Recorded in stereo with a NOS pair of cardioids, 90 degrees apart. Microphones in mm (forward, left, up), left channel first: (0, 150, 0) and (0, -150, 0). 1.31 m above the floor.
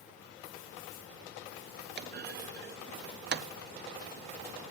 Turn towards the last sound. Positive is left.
turn(degrees=-35)